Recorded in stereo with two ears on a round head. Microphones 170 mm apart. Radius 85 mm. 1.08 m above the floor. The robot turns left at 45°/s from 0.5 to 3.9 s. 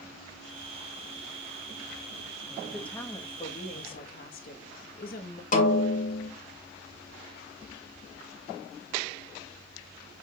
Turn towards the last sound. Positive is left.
turn(degrees=45)  # may be behind; listen again after turning